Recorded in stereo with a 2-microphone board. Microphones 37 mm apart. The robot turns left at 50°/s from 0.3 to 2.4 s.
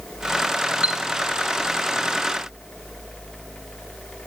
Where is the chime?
30° right (ahead or behind), 1.5 m; by 1.0 s 25° right (ahead or behind), 1.5 m.